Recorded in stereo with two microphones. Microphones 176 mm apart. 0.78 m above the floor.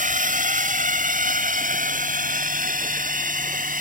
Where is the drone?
45° right (ahead or behind).